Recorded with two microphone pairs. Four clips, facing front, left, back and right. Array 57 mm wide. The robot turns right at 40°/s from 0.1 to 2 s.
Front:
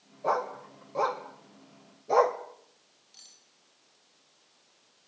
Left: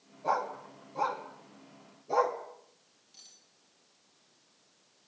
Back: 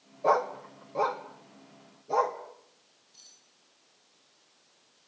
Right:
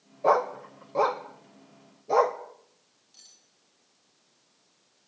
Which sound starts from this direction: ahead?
Cutlery clinking, at 3.1 s.